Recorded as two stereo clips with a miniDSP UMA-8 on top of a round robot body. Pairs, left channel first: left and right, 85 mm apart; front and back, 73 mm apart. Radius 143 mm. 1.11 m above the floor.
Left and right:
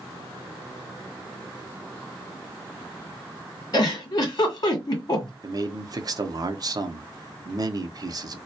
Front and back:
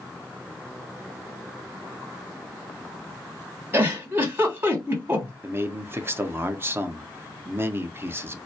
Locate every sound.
3.7 s a giggle: 125° left, 1.6 m
5.4 s a man speaking: 125° right, 0.7 m